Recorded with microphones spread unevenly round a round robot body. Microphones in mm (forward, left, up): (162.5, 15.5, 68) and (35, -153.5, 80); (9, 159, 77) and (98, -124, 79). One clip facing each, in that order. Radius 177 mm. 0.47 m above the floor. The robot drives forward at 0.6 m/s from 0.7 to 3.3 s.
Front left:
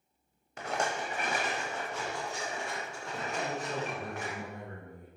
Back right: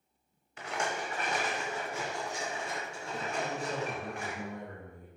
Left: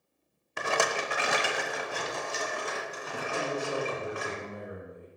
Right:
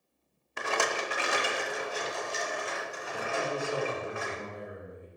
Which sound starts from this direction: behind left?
A rattle, at 0.6 s.